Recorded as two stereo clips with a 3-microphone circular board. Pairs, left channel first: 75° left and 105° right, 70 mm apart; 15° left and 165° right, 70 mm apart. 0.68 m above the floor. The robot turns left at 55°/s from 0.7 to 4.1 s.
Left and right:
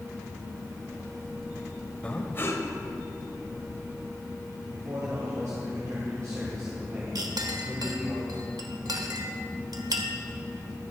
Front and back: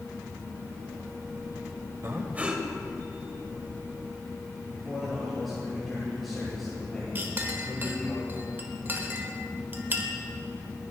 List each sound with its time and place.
2.0 s breathing: 145° left, 1.1 m; by 2.6 s 110° left, 1.1 m
4.7 s a man speaking: 75° right, 3 m
7.2 s a clink: 105° right, 1.1 m